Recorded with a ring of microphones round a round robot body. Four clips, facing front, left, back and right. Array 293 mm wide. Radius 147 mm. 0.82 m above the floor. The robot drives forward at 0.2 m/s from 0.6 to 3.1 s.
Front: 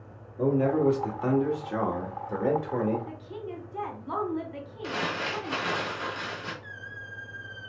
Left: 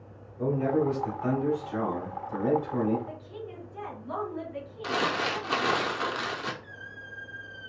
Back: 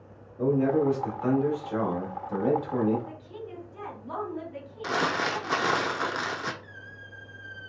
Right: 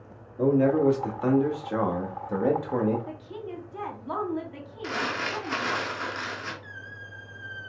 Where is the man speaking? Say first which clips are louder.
Right 5 dB, even; 60° right, 1.4 m; by 3.0 s 80° right, 1.2 m.